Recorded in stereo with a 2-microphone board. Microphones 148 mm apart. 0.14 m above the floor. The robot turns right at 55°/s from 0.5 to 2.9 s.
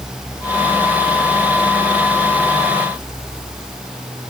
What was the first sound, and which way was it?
Only background noise.